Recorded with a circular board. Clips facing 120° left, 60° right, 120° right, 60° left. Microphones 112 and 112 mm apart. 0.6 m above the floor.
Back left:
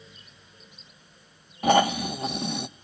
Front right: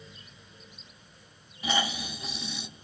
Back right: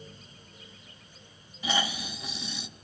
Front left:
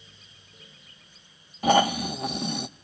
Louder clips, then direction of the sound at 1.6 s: Back left 11 dB, front left 11 dB; 90° left.